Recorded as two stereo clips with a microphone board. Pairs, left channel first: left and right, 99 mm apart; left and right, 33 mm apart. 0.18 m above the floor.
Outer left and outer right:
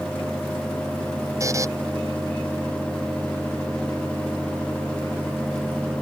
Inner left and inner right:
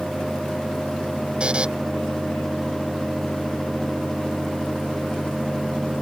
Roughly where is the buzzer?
Right.